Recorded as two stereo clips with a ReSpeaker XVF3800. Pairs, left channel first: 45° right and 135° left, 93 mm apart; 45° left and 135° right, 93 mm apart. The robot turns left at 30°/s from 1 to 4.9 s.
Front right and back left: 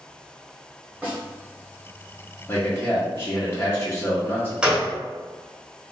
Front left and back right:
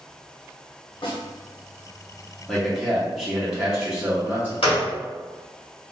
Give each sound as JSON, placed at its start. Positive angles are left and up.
{"t": 1.0, "sound": "a snare drum", "azimuth_deg": 60, "distance_m": 1.1}
{"t": 2.5, "sound": "a man speaking", "azimuth_deg": -25, "distance_m": 0.7}
{"t": 4.6, "sound": "a gunshot", "azimuth_deg": 55, "distance_m": 1.0}